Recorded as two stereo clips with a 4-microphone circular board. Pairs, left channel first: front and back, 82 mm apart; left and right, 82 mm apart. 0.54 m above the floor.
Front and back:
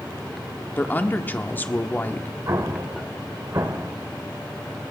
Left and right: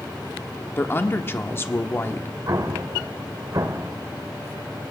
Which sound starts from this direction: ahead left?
A woman speaking, at 0.8 s.